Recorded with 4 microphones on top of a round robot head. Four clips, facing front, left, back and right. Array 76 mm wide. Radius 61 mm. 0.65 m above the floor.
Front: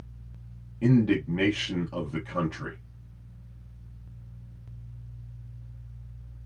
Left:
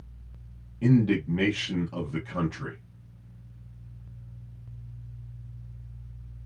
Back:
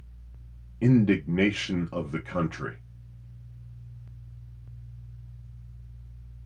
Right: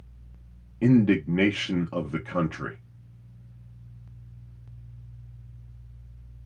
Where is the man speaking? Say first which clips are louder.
Right 3 dB, back 1 dB; 115° right, 0.9 m.